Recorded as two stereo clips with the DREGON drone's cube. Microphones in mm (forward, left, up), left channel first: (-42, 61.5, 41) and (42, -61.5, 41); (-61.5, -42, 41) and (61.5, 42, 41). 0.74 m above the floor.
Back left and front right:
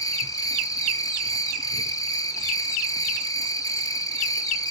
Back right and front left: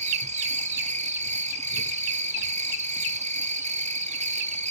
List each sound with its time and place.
0.0 s an insect: 60° left, 1.2 m